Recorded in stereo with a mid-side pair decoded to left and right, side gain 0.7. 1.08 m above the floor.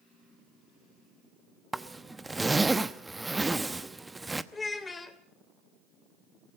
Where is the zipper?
10° right, 0.9 m.